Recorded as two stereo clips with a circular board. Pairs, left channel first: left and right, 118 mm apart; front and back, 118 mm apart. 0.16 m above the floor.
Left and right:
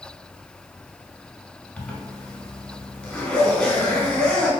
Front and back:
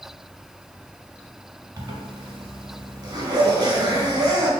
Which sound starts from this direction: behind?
A zipper, at 1.8 s.